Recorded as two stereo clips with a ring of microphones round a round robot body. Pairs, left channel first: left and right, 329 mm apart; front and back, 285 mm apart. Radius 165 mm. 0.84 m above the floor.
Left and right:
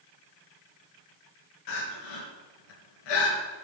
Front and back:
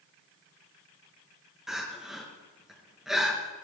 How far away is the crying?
About 3.5 m.